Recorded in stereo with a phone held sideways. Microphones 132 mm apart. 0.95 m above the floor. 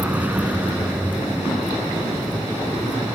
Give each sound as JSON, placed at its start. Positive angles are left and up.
{"t": 0.0, "sound": "a vehicle", "side_deg": -10}